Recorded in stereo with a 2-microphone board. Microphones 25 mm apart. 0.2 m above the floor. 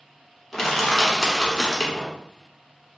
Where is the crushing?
10° left (ahead or behind), 1.2 m.